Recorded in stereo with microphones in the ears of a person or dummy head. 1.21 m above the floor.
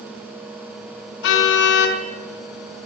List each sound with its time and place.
1.2 s a car horn: 65° left (ahead or behind), 5.5 m